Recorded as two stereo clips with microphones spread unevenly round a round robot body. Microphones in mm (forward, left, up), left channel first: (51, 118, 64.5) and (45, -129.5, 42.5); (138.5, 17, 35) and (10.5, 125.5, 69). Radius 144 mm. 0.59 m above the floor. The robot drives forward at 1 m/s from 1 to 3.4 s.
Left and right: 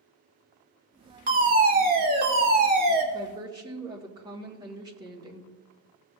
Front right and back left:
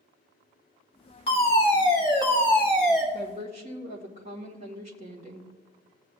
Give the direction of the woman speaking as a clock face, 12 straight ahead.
5 o'clock.